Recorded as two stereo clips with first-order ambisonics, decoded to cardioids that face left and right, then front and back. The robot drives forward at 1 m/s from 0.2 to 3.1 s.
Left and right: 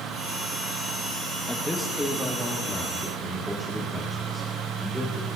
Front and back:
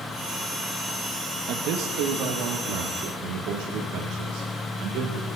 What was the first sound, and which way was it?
A man speaking, 175° left.